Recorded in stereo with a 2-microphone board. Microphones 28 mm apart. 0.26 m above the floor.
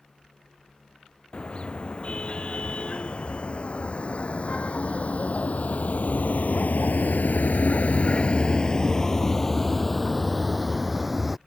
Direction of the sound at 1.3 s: 40° left (ahead or behind).